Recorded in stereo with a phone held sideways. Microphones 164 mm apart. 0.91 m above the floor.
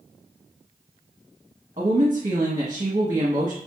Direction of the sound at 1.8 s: 40° right (ahead or behind).